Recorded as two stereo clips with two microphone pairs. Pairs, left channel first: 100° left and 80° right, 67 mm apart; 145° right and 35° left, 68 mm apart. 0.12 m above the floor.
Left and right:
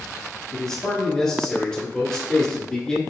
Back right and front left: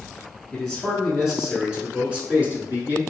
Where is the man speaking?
155° left, 1.8 m; by 3.0 s 30° left, 2.0 m.